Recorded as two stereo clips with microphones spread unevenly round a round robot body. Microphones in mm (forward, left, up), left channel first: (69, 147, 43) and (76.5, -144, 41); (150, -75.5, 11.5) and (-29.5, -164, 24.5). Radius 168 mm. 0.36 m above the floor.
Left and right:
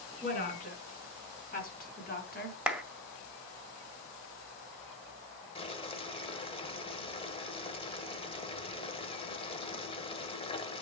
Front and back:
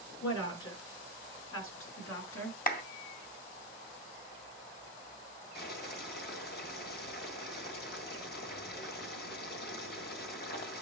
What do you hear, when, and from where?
0.2 s a woman speaking: 30° left, 5.5 m; by 2.6 s 35° left, 4 m
2.7 s a clap: 5° right, 1.9 m
5.5 s boiling: 25° left, 1.7 m